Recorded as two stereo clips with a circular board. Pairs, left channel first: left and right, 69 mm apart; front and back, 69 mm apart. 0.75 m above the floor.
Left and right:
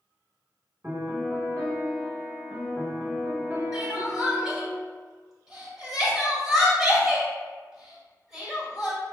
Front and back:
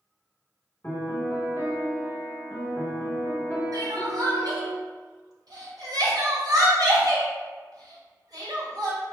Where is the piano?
40° right, 1.4 m.